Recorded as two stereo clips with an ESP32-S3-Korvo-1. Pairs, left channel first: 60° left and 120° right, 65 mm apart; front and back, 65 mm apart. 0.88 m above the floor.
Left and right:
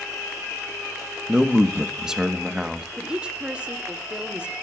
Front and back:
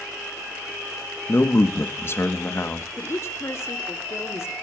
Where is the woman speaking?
45° right, 1.7 m.